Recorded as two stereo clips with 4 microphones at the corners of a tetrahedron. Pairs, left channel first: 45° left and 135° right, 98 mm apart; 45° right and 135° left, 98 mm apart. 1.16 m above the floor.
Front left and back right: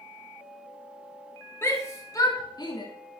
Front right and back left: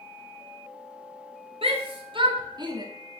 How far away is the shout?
About 2.5 m.